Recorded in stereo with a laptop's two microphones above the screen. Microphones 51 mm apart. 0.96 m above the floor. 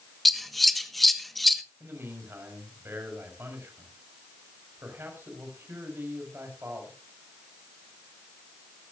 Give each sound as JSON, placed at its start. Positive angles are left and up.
{"t": 0.2, "sound": "scissors", "side_deg": 0, "distance_m": 1.3}
{"t": 1.8, "sound": "a man speaking", "side_deg": -45, "distance_m": 5.5}